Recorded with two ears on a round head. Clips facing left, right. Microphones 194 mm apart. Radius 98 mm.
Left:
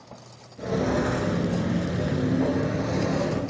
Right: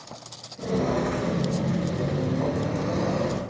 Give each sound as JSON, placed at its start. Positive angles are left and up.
{"t": 0.6, "sound": "footsteps", "side_deg": 10, "distance_m": 1.5}